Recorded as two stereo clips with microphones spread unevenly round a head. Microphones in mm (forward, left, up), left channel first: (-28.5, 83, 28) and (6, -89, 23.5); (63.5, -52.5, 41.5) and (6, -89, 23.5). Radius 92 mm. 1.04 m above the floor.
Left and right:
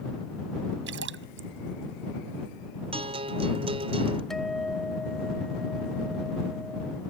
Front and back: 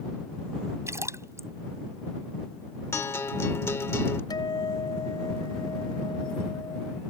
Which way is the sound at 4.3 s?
15° left.